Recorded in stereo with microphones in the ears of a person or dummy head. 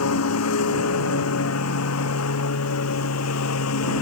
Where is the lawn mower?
85° left.